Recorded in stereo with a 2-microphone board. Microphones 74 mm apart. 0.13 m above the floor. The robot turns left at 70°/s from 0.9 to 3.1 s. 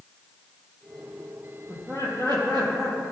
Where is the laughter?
35° right, 3.5 m; by 3.0 s 130° right, 3.5 m.